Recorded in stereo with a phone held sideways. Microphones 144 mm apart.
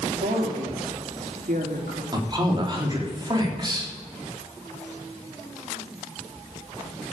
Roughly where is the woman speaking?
Right.